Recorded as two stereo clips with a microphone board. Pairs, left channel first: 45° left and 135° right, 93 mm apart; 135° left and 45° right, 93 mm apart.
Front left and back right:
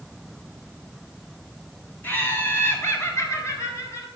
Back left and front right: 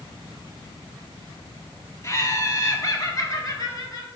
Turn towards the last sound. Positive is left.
turn(degrees=95)